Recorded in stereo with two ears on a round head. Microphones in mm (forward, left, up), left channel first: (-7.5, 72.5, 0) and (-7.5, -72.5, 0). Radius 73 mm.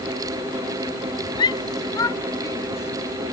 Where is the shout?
25° left (ahead or behind); by 3.2 s 15° left (ahead or behind).